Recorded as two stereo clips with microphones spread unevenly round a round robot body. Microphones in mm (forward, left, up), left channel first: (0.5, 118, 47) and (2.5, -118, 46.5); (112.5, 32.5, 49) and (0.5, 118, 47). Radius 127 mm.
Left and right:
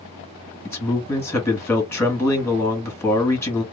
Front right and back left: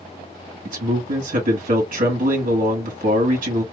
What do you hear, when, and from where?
0.7 s a man speaking: 170° left, 1.7 m